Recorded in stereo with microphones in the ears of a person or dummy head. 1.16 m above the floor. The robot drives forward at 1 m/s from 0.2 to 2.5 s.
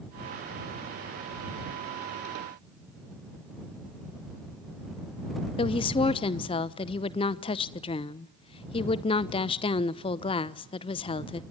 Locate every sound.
5.6 s a woman speaking: 30° left (ahead or behind), 0.8 m